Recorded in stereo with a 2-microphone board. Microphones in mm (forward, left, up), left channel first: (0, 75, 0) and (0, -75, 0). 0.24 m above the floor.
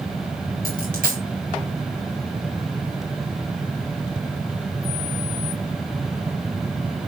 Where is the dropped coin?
70° right (ahead or behind), 3 m.